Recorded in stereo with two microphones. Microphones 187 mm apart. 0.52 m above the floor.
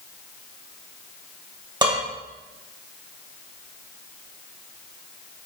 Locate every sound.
1.8 s dishes clattering: 25° right (ahead or behind), 1.9 m